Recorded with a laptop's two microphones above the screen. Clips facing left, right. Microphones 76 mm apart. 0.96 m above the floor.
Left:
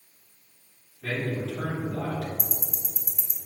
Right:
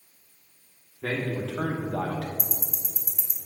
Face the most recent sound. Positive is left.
turn(degrees=-5)  # may be behind; listen again after turning